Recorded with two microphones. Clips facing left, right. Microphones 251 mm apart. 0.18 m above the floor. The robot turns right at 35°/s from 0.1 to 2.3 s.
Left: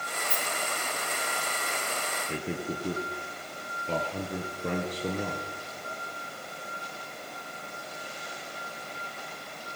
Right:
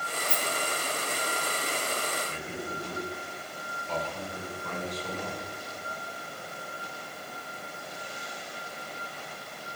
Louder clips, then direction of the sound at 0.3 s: Right 1 dB; 85° right.